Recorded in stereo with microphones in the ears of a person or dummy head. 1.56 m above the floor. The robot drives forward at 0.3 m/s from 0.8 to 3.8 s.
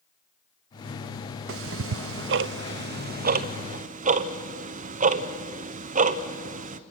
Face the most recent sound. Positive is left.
turn(degrees=-40)  # may be behind; listen again after turning